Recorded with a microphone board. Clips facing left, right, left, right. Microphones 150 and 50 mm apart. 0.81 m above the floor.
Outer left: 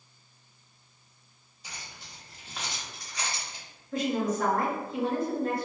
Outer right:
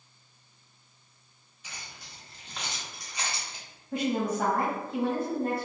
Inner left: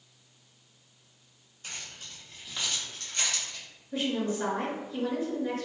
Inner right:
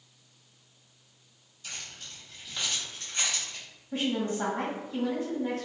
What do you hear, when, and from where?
1.6 s keys jangling: 35° left (ahead or behind), 1.1 m; by 3.6 s 30° right (ahead or behind), 1.2 m
3.9 s a woman speaking: 55° right (ahead or behind), 1.4 m